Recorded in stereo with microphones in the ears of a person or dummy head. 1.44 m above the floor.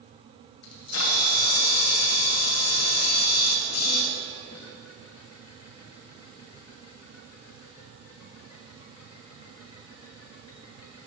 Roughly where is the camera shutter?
Left.